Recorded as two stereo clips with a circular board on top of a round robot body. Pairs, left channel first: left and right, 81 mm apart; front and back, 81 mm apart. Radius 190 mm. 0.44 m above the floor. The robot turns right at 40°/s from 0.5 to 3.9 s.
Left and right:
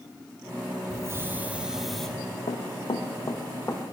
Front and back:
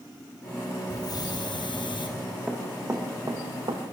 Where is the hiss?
40° right, 6.5 m; by 2.1 s 5° left, 6.5 m.